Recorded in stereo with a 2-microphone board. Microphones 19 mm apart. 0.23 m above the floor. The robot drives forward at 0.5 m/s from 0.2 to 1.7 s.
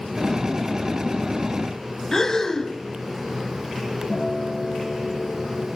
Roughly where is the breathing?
Left.